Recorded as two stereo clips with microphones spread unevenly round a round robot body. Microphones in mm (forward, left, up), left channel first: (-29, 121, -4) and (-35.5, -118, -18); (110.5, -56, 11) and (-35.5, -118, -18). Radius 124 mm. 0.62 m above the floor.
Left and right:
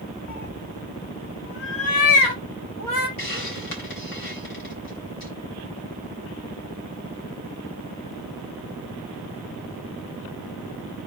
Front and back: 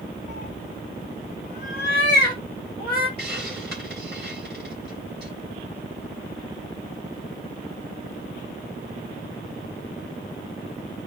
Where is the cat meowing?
45° left, 0.7 m; by 3.1 s 60° left, 2.5 m.